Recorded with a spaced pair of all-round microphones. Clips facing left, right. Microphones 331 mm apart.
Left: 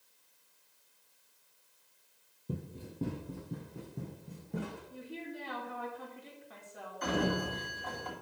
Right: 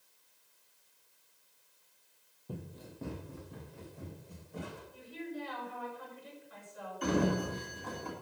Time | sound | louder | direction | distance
2.5 | running footsteps | left 4 dB | 25° left (ahead or behind) | 1.9 m
4.9 | a woman speaking | right 1 dB | 75° left (ahead or behind) | 4 m
7.0 | a sliding door | right 2 dB | 35° right (ahead or behind) | 2.5 m